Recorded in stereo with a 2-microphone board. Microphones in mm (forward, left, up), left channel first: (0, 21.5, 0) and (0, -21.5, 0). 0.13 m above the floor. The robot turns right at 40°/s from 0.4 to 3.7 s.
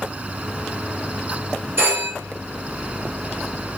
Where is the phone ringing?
50° right (ahead or behind), 1.7 m; by 2.1 s 55° right (ahead or behind), 1.7 m.